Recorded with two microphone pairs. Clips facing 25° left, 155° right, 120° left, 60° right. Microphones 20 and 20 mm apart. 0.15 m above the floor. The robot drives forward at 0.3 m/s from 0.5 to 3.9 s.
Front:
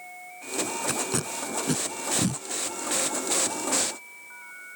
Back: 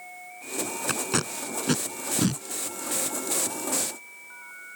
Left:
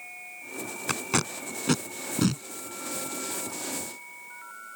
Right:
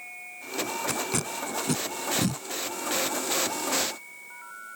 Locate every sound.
0.9 s tape being pulled: 170° left